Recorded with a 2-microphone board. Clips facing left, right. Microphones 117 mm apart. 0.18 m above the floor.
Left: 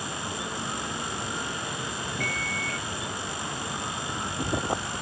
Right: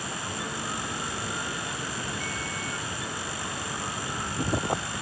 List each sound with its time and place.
2.2 s a microwave: 60° left (ahead or behind)